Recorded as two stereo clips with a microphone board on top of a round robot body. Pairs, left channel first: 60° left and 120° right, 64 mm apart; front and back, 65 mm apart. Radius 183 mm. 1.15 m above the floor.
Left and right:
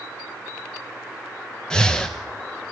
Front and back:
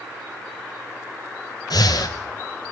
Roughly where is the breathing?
Ahead.